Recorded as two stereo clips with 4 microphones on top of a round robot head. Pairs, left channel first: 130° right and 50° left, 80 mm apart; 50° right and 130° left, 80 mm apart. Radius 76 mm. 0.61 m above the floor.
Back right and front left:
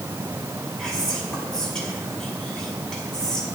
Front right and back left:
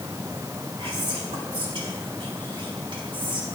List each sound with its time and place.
0.8 s whispering: 150° left, 5 m